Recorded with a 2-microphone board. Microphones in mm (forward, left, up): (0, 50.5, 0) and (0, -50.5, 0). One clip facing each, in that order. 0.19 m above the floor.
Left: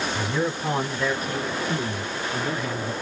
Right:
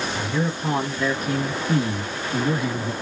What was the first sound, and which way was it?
A man speaking, 15° left (ahead or behind).